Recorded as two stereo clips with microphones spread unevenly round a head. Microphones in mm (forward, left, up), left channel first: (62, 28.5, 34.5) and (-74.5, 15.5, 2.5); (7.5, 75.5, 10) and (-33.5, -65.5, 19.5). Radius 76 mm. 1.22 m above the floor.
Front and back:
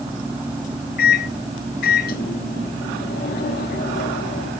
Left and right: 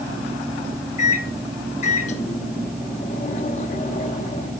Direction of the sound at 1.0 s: 25° left.